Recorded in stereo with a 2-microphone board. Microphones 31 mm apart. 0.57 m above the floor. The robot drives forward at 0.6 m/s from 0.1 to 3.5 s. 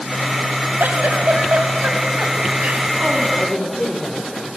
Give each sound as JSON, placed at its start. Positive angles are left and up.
{"t": 0.8, "sound": "a giggle", "side_deg": -85, "distance_m": 1.8}
{"t": 3.4, "sound": "a woman speaking", "side_deg": 25, "distance_m": 1.9}